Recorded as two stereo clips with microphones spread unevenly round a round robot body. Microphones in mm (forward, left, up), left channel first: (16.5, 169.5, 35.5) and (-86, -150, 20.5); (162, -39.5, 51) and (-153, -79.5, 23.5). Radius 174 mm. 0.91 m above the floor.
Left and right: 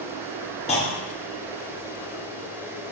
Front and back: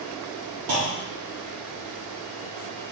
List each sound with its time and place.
0.7 s a clunk: 140° left, 0.6 m